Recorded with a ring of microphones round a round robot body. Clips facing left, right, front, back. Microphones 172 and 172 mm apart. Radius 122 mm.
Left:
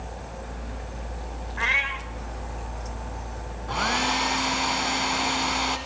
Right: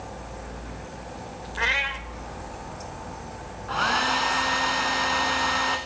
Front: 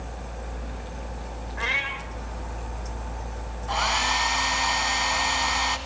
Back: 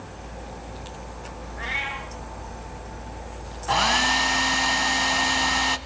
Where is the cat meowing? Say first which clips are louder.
Right 2 dB, even; 40° right, 1.1 m.